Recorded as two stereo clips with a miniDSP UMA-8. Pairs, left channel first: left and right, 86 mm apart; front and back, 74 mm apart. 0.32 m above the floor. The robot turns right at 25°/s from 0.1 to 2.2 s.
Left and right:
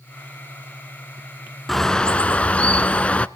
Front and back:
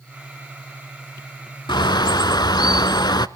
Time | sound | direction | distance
1.7 | a bird | straight ahead | 0.5 m